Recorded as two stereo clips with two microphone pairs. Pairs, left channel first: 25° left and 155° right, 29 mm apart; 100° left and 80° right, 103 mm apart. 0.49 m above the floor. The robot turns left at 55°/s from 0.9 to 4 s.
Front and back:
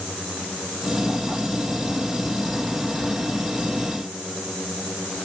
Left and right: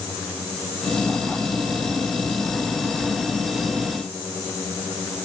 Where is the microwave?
No microwave in this recording.